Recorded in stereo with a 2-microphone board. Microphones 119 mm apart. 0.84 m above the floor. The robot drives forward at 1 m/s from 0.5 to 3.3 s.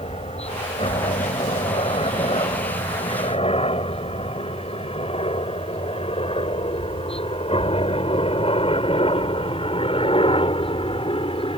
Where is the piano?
No piano in this recording.